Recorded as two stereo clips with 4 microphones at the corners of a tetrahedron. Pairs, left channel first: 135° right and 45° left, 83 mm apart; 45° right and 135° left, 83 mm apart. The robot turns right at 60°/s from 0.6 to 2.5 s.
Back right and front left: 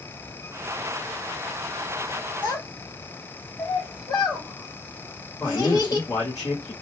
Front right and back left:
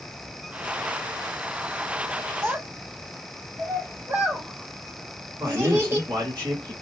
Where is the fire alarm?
I don't hear a fire alarm.